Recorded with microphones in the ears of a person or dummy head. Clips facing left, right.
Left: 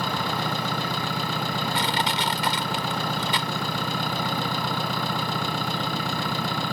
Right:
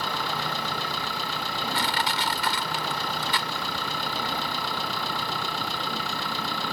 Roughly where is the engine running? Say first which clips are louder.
Left 3 dB; left.